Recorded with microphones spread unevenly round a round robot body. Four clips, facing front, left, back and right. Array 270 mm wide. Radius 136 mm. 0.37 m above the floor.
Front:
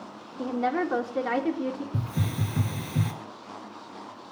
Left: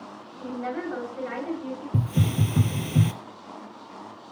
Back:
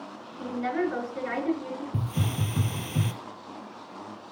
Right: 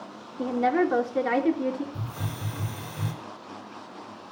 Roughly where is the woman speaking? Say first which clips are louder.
Right 8 dB, front 2 dB; ahead right.